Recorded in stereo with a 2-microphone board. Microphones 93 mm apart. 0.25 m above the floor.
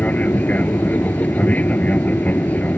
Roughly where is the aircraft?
Centre.